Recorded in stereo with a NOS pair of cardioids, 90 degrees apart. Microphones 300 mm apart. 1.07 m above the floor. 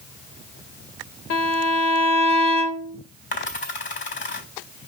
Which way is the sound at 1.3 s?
60° left.